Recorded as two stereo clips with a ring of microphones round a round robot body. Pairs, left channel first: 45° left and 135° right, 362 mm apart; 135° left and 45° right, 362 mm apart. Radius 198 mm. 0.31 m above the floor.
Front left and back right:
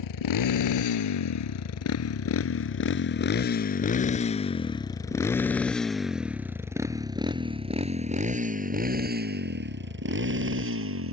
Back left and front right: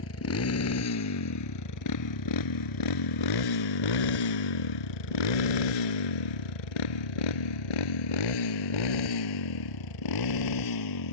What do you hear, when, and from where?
0.0 s a motorcycle: 80° left; by 11.1 s 170° left